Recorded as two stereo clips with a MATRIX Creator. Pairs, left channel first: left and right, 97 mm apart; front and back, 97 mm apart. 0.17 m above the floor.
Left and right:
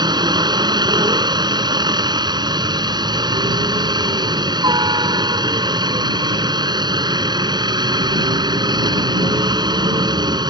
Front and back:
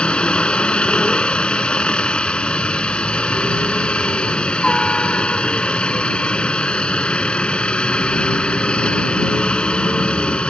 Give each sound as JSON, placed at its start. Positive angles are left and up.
{"t": 0.0, "sound": "a helicopter", "azimuth_deg": -75}